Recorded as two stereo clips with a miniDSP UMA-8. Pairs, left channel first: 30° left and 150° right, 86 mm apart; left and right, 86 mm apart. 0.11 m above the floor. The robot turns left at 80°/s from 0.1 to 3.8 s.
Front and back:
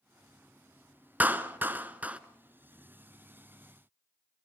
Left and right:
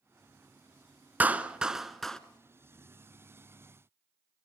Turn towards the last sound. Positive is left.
turn(degrees=35)